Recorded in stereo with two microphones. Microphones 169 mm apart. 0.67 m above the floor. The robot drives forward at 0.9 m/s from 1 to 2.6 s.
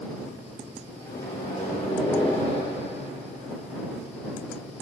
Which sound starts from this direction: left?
A microwave, at 1.1 s.